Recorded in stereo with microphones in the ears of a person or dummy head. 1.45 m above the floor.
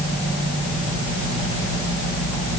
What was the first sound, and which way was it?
Only background noise.